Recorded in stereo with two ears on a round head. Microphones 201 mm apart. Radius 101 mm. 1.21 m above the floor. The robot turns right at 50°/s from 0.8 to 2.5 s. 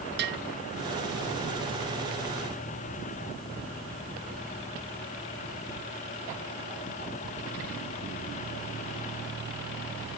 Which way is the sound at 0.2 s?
50° right (ahead or behind).